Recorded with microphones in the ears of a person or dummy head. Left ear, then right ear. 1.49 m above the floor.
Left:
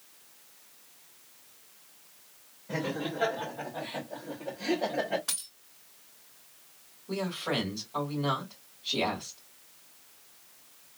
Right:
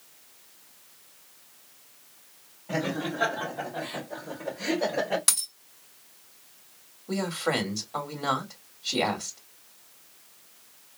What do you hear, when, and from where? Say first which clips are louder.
2.7 s laughter: right 3 dB; 40° right (ahead or behind), 2.5 m; by 5.2 s 75° right (ahead or behind), 1.9 m
5.3 s a dropped coin: right 8 dB; 65° right (ahead or behind), 2.5 m
7.1 s a man speaking: right 4 dB; 70° right (ahead or behind), 2 m